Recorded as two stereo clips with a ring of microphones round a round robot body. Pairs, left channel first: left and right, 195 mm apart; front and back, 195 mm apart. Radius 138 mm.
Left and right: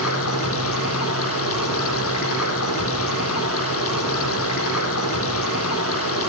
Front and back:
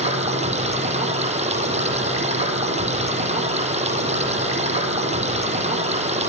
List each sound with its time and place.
0.0 s running water: 125° left, 7 m